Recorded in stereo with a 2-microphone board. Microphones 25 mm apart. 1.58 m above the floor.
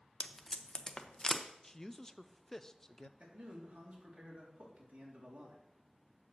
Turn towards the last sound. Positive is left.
turn(degrees=-65)  # may be behind; listen again after turning